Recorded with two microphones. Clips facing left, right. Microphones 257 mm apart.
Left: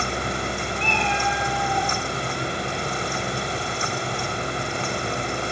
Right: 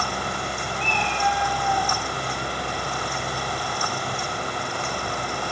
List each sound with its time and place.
0.8 s a cat meowing: 25° left (ahead or behind), 6 m